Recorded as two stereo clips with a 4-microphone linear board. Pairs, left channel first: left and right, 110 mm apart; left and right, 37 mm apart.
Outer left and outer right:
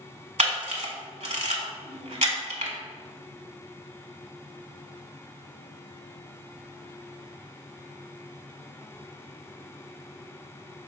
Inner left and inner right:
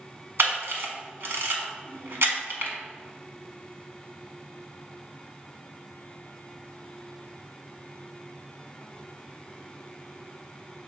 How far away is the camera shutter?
About 0.9 m.